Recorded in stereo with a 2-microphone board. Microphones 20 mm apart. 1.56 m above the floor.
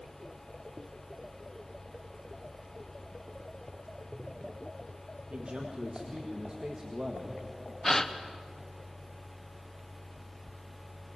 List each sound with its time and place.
5.3 s a man speaking: 65° right (ahead or behind), 1.7 m; by 7.4 s 25° right (ahead or behind), 2 m
7.8 s a gasp: 20° left (ahead or behind), 1.0 m